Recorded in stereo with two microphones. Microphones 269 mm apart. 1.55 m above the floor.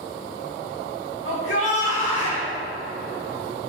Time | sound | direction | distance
1.2 | a shout | 50° left (ahead or behind) | 2 m